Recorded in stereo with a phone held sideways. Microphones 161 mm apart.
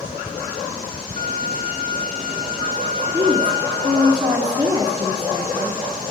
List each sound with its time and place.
1.2 s a violin: 70° right (ahead or behind), 1.3 m
3.1 s a woman speaking: 25° right (ahead or behind), 1.1 m